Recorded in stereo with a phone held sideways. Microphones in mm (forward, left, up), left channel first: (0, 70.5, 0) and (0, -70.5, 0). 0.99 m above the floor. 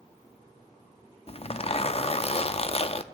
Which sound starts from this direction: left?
A zipper, at 1.3 s.